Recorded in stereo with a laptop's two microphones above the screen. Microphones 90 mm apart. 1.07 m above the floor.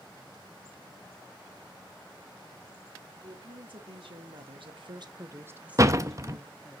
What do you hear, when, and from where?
3.2 s a woman speaking: 65° right (ahead or behind), 2.5 m; by 6.8 s 15° left (ahead or behind), 2 m
5.8 s a door slam: 35° right (ahead or behind), 0.7 m